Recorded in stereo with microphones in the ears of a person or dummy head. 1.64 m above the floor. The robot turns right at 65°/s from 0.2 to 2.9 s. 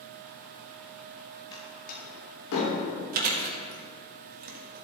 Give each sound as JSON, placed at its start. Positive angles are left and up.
{"t": 1.5, "sound": "a door slam", "side_deg": 30, "distance_m": 3.0}
{"t": 3.1, "sound": "chewing", "side_deg": -50, "distance_m": 1.8}